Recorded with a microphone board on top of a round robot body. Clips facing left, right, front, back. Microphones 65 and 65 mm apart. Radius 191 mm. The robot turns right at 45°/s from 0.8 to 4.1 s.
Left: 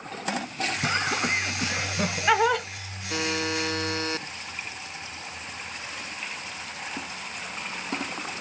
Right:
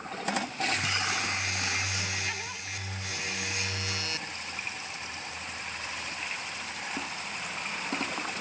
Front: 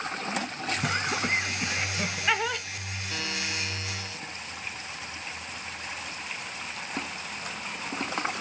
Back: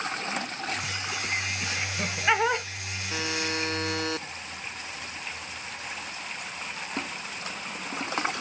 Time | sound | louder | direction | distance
0.8 | laughter | left 5 dB, front 5 dB | 40° left | ?
3.1 | a buzzer | left 9 dB, back 4 dB | 105° left | ?